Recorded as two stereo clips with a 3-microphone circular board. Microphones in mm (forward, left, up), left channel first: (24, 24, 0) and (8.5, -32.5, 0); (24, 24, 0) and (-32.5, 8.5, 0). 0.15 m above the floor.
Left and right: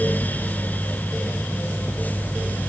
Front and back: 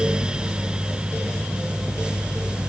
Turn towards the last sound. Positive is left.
No sound to turn to.